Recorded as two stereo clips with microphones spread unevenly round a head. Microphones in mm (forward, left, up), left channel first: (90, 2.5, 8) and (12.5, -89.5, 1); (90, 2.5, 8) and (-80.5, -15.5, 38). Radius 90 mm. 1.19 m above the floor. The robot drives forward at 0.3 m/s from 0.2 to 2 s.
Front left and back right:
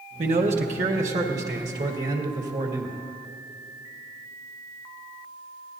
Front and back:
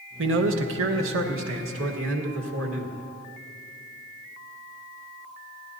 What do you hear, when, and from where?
0.2 s a man speaking: 170° right, 1.0 m; by 3.0 s 175° right, 1.5 m